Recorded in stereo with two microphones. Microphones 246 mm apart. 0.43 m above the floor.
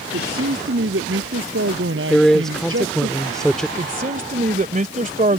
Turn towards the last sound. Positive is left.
turn(degrees=-35)  # may be behind; listen again after turning